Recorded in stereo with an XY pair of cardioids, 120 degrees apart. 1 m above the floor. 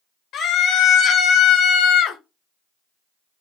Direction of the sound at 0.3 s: 55° left.